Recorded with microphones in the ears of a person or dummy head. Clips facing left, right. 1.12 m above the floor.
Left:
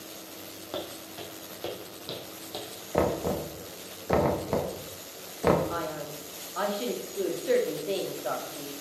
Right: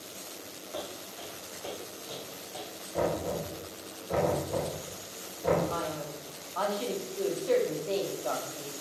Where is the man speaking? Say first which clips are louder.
Left 1 dB; 15° left (ahead or behind), 2.0 m.